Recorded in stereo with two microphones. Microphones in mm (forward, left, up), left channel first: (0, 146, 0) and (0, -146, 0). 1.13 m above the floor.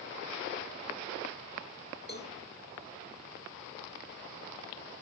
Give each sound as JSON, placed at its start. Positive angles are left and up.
{"t": 2.1, "sound": "a cowbell", "side_deg": 30, "distance_m": 2.5}